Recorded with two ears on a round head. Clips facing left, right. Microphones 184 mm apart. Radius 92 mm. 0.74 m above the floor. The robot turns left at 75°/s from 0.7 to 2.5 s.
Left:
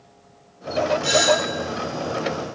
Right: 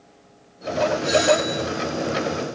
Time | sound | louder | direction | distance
1.0 | a doorbell | right 1 dB | 110° left | 4 m